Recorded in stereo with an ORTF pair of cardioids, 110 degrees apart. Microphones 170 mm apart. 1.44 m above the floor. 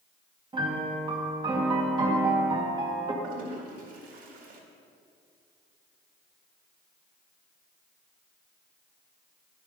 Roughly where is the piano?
Ahead right.